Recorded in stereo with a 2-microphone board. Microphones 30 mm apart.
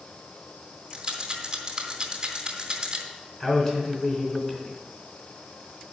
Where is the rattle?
25° right (ahead or behind), 2 m.